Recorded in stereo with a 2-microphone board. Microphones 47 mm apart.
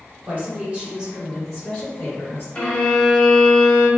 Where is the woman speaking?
40° right (ahead or behind), 1.4 m; by 2.5 s 40° left (ahead or behind), 1.3 m.